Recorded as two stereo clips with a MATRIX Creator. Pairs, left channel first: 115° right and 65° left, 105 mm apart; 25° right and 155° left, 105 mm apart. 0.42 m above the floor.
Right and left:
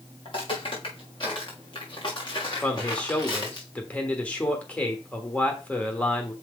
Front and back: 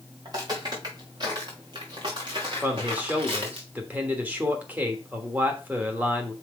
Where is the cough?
No cough in this recording.